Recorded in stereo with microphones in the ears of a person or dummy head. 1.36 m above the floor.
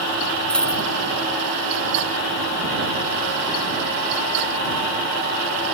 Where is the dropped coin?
5° left (ahead or behind).